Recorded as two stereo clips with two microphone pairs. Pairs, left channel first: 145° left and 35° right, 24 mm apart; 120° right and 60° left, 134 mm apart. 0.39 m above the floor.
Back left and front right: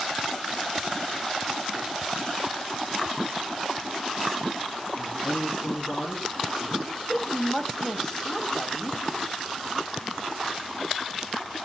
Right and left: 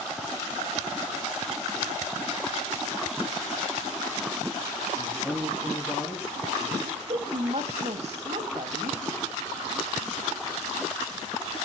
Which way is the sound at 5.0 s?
140° left.